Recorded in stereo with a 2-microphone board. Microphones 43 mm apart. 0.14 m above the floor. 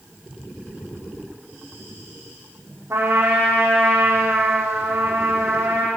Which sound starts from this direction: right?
A trumpet, at 2.9 s.